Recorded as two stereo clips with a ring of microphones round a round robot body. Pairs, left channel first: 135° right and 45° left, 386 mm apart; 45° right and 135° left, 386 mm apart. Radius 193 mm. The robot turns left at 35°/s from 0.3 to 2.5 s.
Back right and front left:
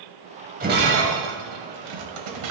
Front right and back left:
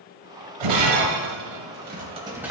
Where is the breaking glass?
115° left, 2.5 m; by 2.5 s 50° left, 2.5 m.